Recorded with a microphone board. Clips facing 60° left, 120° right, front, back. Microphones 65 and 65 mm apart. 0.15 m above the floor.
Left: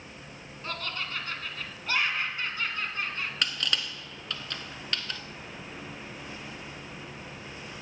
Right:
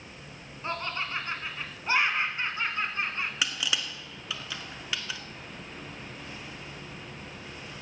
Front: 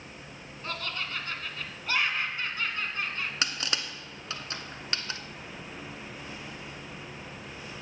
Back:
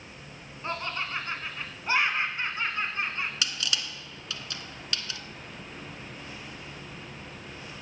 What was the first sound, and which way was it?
Laughter, 150° right.